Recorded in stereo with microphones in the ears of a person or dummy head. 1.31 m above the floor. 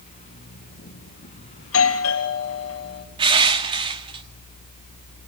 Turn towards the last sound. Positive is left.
turn(degrees=-20)  # may be behind; listen again after turning